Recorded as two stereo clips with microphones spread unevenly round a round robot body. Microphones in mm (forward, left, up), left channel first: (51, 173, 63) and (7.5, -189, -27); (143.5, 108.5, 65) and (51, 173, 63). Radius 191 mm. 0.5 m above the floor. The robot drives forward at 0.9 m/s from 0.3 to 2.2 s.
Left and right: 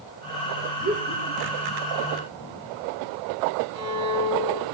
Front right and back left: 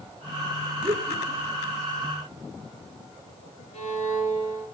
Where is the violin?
70° right, 6.5 m.